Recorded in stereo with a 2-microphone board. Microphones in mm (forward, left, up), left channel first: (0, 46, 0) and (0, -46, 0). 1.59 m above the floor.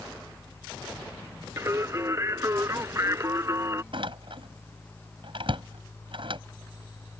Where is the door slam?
65° right (ahead or behind).